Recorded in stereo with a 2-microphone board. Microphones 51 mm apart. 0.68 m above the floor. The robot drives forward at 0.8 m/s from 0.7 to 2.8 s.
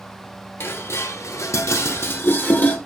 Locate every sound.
0.6 s dishes clattering: 50° left (ahead or behind), 1.0 m; by 2.8 s 35° left (ahead or behind), 1.3 m